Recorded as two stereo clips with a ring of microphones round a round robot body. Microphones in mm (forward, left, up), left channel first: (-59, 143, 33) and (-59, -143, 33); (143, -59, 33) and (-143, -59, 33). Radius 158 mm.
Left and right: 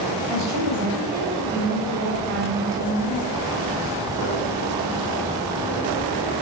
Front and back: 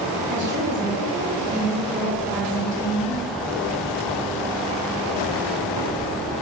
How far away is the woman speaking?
About 2 m.